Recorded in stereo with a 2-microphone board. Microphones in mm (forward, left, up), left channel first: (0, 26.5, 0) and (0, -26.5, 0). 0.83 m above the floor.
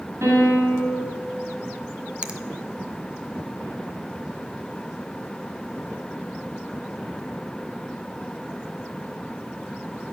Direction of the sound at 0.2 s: 60° right (ahead or behind).